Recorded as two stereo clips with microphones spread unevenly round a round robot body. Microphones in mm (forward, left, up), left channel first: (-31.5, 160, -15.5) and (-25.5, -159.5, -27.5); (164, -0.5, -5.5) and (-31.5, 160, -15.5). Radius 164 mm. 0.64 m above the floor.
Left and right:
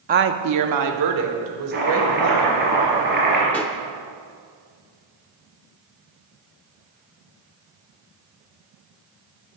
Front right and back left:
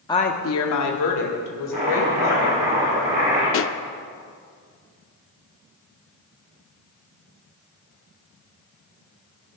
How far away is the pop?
About 0.5 m.